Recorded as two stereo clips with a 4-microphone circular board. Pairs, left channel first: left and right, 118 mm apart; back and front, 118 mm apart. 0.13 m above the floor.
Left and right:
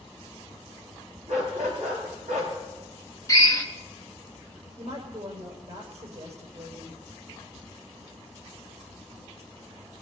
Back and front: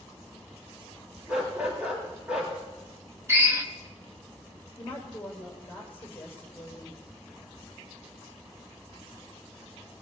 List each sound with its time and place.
1.3 s a dog barking: 80° right, 8.5 m
3.3 s a drill: 50° left, 1.5 m
4.8 s a woman speaking: 105° right, 7 m